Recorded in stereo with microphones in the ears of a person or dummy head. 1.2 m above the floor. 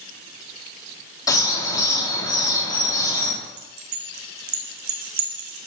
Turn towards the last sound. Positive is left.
turn(degrees=-50)  # may be behind; listen again after turning